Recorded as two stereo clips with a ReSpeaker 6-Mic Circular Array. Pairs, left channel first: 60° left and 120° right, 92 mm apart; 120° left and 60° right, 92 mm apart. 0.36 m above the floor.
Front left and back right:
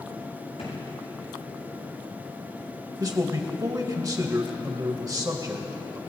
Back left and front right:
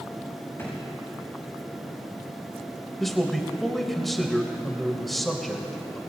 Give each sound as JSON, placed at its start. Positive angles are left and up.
{"t": 0.6, "sound": "a drawer", "azimuth_deg": 55, "distance_m": 7.0}
{"t": 3.0, "sound": "a man speaking", "azimuth_deg": -150, "distance_m": 1.5}